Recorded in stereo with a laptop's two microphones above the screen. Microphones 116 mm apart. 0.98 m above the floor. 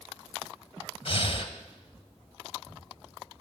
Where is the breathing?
55° left (ahead or behind), 1.7 m.